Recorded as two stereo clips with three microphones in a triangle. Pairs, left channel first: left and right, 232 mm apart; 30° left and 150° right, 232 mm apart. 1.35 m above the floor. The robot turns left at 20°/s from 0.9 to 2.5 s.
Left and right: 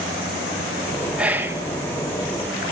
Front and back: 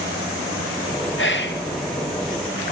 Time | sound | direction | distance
1.2 | whispering | 5° right | 1.7 m